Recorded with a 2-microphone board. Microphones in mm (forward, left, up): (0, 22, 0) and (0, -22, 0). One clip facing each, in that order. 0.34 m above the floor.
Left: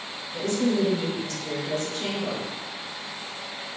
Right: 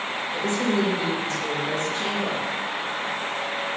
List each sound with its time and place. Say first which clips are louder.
0.3 s a woman speaking: even; 30° right (ahead or behind), 1.1 m